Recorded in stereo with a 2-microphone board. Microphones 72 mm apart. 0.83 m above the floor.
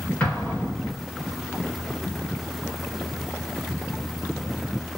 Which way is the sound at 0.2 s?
20° left (ahead or behind).